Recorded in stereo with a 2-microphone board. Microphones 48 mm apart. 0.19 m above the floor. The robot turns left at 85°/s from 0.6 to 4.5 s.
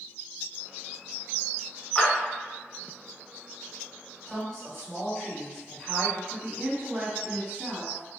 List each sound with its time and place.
1.9 s a clap: 25° left (ahead or behind), 1.6 m; by 2.1 s 35° left (ahead or behind), 1.6 m
4.3 s a woman speaking: 10° left (ahead or behind), 1.6 m; by 6.2 s 5° left (ahead or behind), 1.6 m
6.3 s a woman speaking: 35° right (ahead or behind), 1.6 m